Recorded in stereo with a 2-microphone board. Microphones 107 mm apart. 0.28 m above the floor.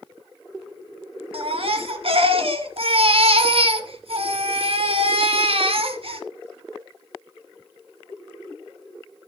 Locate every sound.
1.3 s a baby crying: 60° right (ahead or behind), 2 m